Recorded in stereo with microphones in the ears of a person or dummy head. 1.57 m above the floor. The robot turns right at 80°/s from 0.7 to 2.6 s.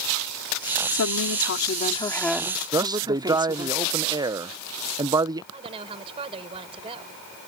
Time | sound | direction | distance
0.9 | a woman speaking | 70° left | ?
2.7 | a man speaking | 25° right (ahead or behind) | ?
5.5 | a woman speaking | 25° right (ahead or behind) | ?